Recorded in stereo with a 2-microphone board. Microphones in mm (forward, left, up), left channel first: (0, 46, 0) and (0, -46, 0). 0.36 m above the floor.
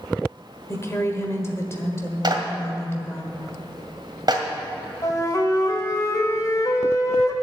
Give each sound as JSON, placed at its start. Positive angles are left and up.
{"t": 0.7, "sound": "a woman speaking", "side_deg": 30, "distance_m": 1.5}
{"t": 2.2, "sound": "a clap", "side_deg": -50, "distance_m": 1.8}
{"t": 5.0, "sound": "a flute", "side_deg": 40, "distance_m": 1.4}